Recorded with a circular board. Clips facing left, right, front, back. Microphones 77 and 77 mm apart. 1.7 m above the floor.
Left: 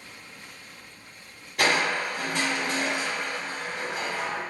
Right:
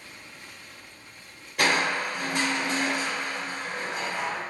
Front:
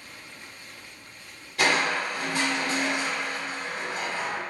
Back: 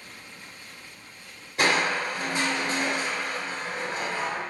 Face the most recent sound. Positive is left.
turn(degrees=-175)